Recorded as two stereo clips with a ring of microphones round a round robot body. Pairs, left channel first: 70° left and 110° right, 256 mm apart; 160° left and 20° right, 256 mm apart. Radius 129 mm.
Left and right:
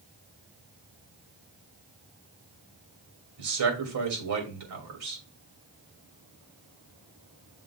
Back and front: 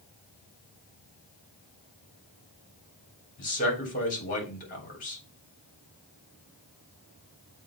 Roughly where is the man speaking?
Behind right.